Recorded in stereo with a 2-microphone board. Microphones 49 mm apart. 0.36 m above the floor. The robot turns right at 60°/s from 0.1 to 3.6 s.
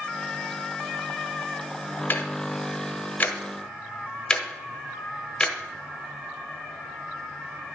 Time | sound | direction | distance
2.1 | ticking | 45° left (ahead or behind) | 0.9 m